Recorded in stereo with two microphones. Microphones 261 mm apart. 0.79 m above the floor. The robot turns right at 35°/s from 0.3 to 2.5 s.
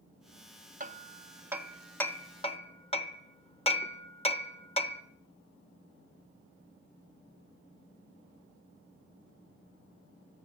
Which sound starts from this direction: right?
Hammering, at 0.8 s.